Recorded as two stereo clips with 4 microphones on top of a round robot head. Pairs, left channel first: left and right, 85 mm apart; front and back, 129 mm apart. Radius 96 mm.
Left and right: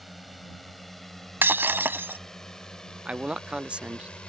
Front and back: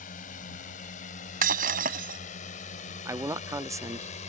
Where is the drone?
Straight ahead; by 4.3 s 10° left.